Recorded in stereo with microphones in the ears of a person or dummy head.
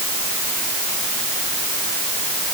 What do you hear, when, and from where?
Only background noise.